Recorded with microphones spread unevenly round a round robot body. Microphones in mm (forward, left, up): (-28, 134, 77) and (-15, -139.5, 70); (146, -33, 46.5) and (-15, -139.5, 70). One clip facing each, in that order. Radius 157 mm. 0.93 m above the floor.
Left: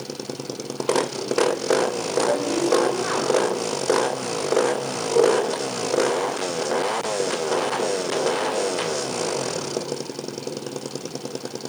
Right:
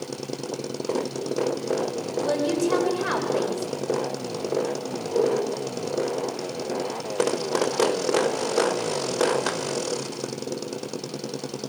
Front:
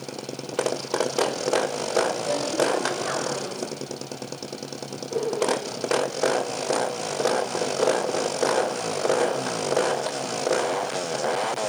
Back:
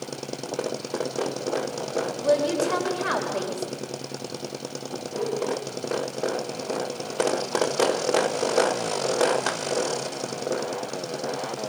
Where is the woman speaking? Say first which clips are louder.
Left 1 dB, back 3 dB; 125° right, 4.5 m.